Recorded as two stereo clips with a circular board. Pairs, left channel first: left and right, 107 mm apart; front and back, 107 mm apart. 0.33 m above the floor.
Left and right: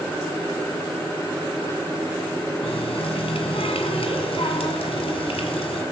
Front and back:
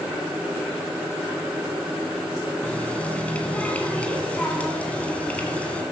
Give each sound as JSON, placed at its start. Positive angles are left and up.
{"t": 2.6, "sound": "a running tap", "azimuth_deg": 75, "distance_m": 1.9}